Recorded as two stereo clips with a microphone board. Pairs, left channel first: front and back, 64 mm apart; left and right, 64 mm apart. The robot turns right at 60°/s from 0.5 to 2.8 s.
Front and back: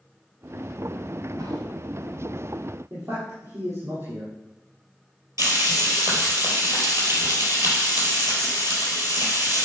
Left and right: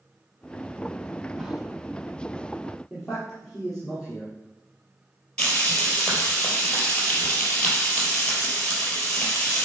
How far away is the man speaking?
About 4.5 m.